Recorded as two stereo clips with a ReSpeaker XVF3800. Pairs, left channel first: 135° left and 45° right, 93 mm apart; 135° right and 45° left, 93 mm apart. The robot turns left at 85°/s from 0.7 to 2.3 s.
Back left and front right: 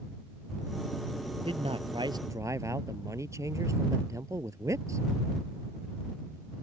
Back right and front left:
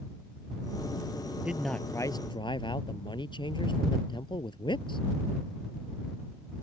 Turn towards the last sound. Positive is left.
turn(degrees=-100)